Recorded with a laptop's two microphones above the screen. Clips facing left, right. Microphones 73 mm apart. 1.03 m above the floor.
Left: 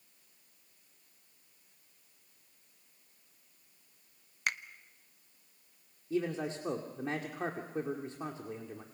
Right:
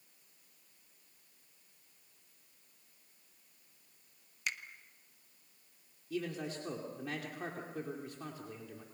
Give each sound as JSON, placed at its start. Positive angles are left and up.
{"t": 4.5, "sound": "a finger snap", "side_deg": 50, "distance_m": 0.7}
{"t": 6.1, "sound": "a man speaking", "side_deg": 30, "distance_m": 2.5}